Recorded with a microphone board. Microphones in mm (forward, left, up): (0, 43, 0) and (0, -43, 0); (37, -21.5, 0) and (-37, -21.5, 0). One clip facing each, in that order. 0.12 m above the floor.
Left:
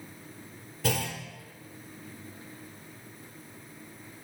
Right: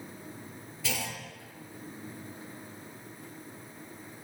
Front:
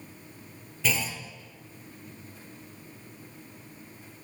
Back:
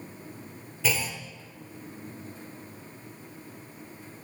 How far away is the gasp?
I don't hear a gasp.